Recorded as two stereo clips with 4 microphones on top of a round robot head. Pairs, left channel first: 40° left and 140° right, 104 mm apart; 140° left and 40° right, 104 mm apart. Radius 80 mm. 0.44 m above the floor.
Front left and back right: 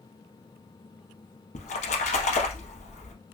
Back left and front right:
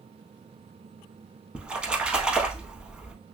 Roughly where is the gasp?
No gasp in this recording.